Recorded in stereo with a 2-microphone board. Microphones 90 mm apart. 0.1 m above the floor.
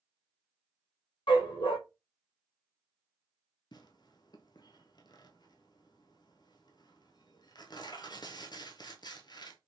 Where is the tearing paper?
55° left (ahead or behind), 0.6 m.